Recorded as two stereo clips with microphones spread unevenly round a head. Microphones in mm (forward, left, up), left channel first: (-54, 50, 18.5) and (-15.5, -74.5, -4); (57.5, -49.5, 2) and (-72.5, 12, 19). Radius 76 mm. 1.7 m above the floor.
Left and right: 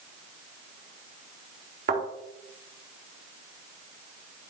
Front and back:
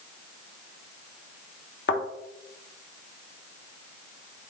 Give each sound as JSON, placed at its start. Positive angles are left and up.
{"t": 1.9, "sound": "a thud", "azimuth_deg": -35, "distance_m": 2.5}